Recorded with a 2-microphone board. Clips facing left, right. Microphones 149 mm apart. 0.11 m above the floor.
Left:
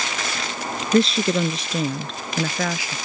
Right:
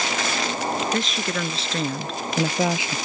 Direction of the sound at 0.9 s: 40° left (ahead or behind).